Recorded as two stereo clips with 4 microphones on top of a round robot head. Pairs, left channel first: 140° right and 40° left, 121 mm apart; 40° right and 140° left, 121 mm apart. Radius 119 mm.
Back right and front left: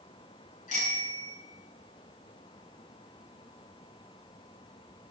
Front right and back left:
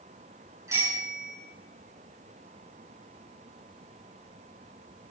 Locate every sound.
0.7 s a bicycle bell: 155° right, 8 m